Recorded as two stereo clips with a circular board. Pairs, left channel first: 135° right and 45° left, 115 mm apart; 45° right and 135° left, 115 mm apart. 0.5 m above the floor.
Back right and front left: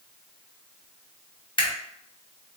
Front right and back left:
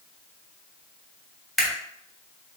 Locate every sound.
1.6 s a camera shutter: 135° right, 1.0 m